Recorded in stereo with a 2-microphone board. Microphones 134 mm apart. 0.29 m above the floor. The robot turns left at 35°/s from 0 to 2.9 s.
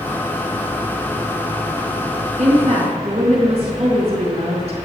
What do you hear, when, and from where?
2.4 s a woman speaking: 65° right (ahead or behind), 4 m; by 4.8 s 50° right (ahead or behind), 4 m